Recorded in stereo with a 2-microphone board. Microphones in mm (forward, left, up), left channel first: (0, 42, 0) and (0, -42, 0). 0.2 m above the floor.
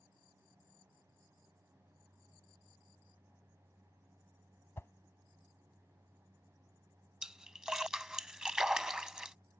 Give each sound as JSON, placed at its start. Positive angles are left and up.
{"t": 4.8, "sound": "a whoosh", "side_deg": 30}
{"t": 7.2, "sound": "a splash", "side_deg": -10}